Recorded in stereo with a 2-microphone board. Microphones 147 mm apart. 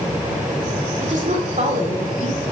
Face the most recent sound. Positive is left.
turn(degrees=-55)  # may be behind; listen again after turning